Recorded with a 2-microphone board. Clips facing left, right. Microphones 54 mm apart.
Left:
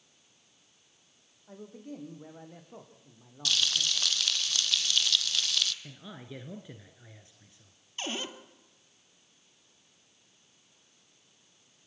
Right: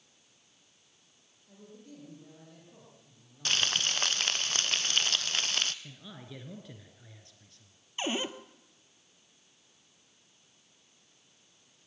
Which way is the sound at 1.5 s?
50° left (ahead or behind).